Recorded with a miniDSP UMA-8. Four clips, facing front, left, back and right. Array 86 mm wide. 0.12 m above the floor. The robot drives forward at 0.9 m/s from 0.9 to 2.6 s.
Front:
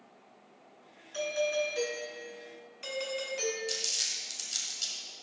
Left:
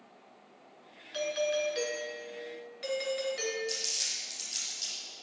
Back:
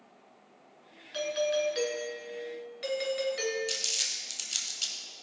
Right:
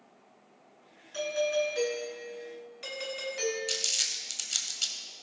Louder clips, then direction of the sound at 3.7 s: Right 1 dB, back 1 dB; 125° right.